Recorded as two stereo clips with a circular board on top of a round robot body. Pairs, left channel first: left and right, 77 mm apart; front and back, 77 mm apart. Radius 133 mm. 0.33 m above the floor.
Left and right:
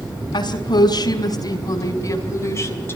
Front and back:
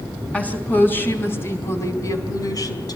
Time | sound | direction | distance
0.3 | a woman speaking | 70° left | 5 m